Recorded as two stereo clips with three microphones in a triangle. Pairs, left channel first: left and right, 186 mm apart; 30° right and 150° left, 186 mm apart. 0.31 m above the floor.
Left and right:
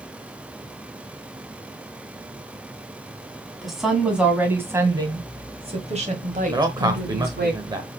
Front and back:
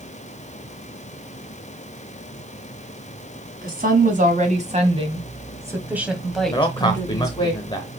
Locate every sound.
3.6 s a woman speaking: straight behind, 2.5 m; by 7.5 s 90° right, 1.9 m
6.5 s a man speaking: 55° right, 0.9 m